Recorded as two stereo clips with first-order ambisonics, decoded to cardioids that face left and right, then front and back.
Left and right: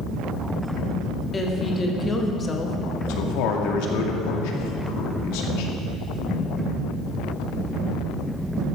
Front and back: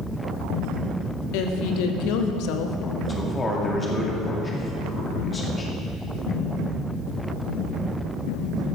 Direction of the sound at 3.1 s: 75° left.